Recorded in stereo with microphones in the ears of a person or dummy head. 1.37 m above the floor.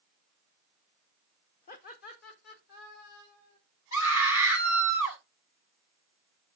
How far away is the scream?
About 6.5 m.